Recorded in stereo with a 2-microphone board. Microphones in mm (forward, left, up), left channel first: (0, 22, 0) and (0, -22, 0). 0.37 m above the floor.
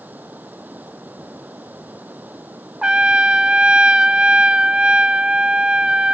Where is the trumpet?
25° right (ahead or behind).